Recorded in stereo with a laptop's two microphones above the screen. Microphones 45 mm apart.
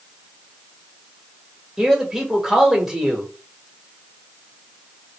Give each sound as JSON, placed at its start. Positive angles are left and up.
{"t": 1.8, "sound": "a man speaking", "side_deg": -10, "distance_m": 1.1}